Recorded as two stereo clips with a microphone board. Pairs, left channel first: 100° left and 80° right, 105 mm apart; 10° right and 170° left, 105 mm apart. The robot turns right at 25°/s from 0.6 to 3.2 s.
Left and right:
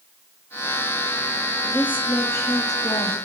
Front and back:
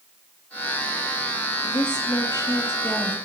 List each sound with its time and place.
1.6 s a woman speaking: 25° left, 4 m; by 3.1 s 60° left, 4 m